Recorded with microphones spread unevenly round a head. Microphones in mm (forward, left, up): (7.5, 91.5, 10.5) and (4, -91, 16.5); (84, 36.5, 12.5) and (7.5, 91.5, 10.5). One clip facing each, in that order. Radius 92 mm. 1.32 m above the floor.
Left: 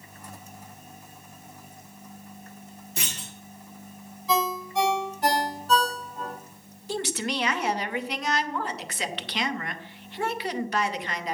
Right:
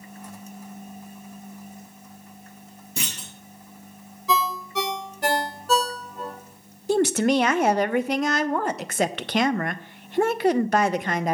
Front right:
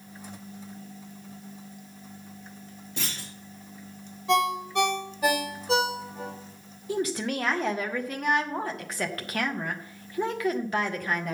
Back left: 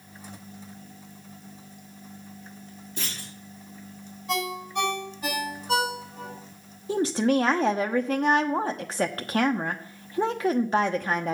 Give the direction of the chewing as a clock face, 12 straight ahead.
No chewing in this recording.